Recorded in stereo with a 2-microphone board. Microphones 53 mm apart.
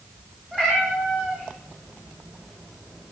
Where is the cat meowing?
20° right (ahead or behind), 8.5 m; by 3.1 s 15° right (ahead or behind), 7 m.